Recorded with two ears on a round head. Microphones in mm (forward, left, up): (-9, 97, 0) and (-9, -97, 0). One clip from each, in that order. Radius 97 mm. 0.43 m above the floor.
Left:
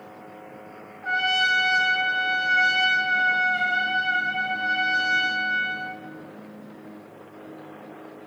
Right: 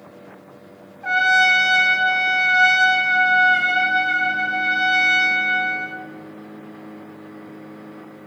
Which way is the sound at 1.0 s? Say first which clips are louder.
Right 6 dB; 60° right (ahead or behind).